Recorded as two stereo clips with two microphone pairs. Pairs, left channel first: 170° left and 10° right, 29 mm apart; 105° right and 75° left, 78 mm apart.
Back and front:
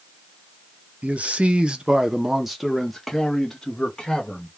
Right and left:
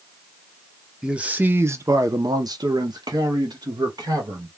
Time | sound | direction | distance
1.0 | a man speaking | 5° right | 0.7 m